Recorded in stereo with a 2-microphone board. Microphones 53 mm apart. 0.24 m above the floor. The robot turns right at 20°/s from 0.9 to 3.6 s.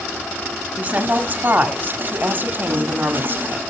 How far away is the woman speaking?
About 1.3 m.